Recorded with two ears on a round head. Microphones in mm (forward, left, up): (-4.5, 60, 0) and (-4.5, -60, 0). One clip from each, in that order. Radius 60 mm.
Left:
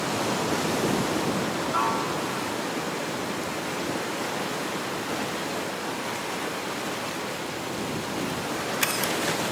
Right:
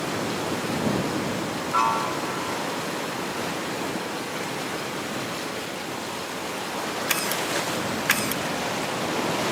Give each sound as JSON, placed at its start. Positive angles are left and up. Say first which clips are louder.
{"t": 1.7, "sound": "a piano", "louder": "right 5 dB", "side_deg": -85}